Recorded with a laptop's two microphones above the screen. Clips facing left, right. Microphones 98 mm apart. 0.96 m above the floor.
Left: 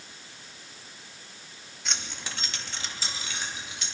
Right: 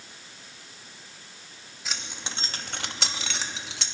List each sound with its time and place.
1.9 s keys jangling: centre (ahead or behind), 0.9 m; by 3.9 s 80° right, 1.2 m